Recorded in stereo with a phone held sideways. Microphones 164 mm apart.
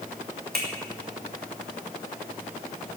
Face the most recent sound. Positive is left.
turn(degrees=-85)